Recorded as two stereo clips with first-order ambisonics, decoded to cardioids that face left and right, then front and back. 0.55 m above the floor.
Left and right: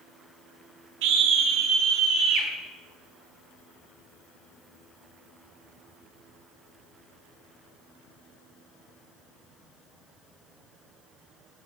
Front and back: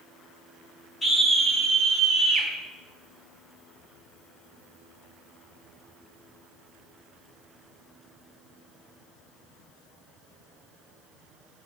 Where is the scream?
80° right, 1.3 m; by 2.5 s 100° right, 1.9 m.